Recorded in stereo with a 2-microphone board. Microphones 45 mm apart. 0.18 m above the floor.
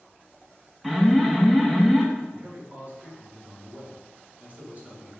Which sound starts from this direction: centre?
An alarm, at 0.8 s.